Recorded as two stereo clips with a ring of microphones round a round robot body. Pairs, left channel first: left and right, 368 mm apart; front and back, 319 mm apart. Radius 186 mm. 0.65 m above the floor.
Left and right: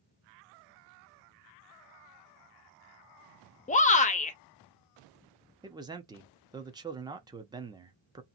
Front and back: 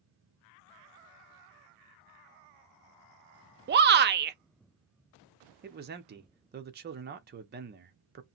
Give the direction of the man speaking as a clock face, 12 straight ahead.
5 o'clock.